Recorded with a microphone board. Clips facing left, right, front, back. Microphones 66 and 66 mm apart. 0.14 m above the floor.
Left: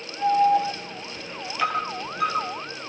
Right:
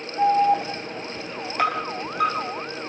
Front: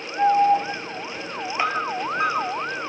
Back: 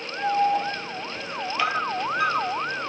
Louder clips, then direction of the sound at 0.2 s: Right 1 dB, front 5 dB; 60° right.